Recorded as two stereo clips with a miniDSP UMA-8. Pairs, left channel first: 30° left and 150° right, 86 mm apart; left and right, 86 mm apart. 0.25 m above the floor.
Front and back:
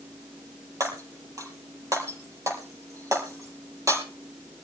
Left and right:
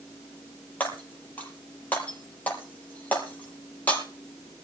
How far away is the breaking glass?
About 4.5 m.